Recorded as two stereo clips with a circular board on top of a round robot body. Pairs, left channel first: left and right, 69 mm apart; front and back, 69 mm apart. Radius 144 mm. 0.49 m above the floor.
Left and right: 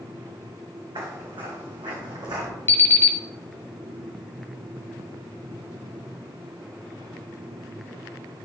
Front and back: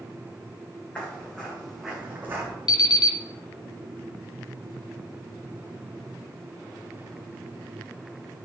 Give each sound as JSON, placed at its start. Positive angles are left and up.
{"t": 0.9, "sound": "footsteps", "azimuth_deg": -70, "distance_m": 3.0}
{"t": 2.7, "sound": "an alarm clock", "azimuth_deg": 30, "distance_m": 0.7}